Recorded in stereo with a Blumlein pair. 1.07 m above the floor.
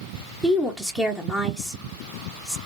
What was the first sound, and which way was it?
A woman speaking, 5° right.